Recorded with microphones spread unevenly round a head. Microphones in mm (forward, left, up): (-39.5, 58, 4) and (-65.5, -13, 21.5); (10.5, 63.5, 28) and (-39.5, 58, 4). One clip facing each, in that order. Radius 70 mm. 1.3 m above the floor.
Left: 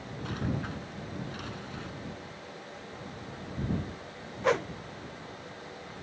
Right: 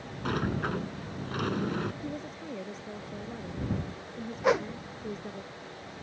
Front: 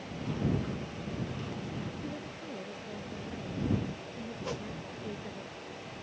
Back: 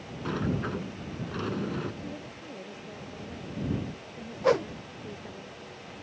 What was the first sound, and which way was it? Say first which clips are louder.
A sliding door: right 5 dB, back 3 dB; 135° right.